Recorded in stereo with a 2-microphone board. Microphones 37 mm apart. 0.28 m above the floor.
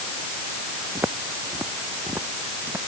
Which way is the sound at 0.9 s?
90° right.